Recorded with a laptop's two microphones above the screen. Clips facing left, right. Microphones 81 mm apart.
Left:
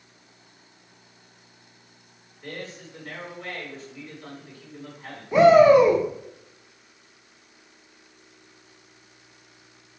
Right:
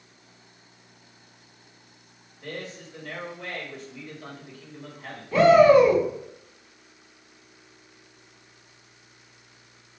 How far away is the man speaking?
About 1.9 m.